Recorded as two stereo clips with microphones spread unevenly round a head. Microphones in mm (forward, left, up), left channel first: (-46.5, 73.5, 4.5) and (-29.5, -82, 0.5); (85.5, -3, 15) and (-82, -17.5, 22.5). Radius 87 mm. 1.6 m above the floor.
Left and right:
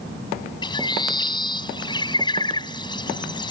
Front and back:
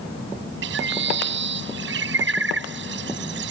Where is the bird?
160° left.